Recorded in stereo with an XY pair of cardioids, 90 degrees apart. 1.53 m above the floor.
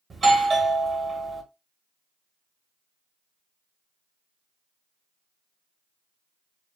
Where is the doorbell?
35° right, 1.2 m.